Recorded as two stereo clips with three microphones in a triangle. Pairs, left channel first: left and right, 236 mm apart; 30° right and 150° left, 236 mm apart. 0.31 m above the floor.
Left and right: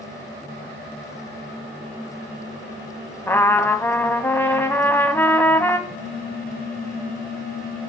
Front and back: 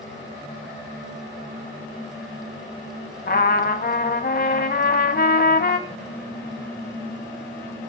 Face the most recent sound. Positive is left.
turn(degrees=45)